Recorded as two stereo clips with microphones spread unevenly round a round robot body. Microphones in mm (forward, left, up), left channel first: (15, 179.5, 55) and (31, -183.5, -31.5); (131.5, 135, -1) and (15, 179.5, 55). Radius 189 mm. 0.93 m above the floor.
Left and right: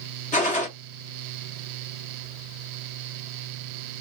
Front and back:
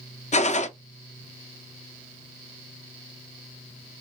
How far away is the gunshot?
About 0.7 m.